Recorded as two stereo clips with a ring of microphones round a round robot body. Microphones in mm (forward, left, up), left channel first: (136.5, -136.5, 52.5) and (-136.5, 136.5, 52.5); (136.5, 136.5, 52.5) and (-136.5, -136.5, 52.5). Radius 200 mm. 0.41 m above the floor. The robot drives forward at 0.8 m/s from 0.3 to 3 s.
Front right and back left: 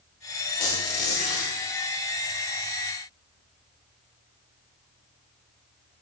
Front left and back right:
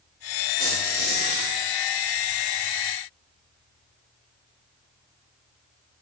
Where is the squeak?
75° right, 7 m; by 1.5 s 85° right, 7 m.